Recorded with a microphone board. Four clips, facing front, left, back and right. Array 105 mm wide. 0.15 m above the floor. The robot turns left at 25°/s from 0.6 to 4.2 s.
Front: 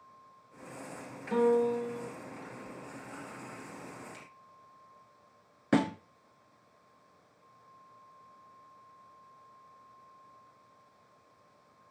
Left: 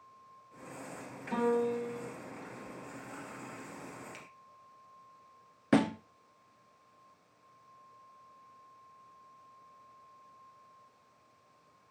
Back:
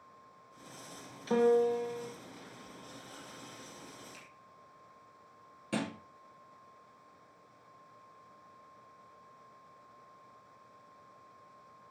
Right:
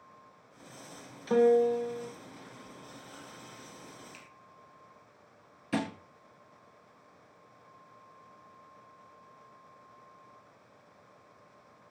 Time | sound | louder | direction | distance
1.3 | a piano | right 7 dB, even | 130° right | 4.5 m
4.1 | a finger snap | left 2 dB, front 3 dB | 75° left | 4 m
5.7 | a thud | left 6 dB, front 9 dB | 50° left | 1.2 m